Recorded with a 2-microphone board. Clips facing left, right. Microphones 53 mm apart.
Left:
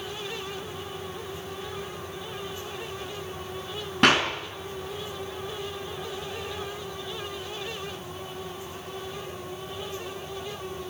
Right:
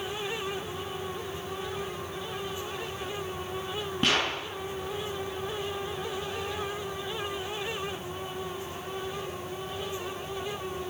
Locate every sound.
4.0 s a clap: 90° left, 7 m